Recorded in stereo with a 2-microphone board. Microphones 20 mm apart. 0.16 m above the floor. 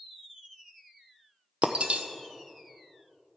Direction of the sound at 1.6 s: 85° right.